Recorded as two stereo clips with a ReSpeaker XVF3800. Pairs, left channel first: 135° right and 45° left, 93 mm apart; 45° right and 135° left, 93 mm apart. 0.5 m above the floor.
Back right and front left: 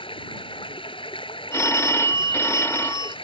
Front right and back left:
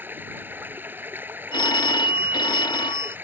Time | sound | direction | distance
0.0 | running water | 155° right | ?
1.5 | a phone ringing | 75° right | ?